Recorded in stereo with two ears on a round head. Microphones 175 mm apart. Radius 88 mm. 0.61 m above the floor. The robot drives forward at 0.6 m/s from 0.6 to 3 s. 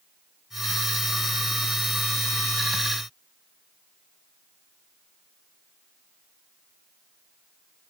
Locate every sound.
Only background noise.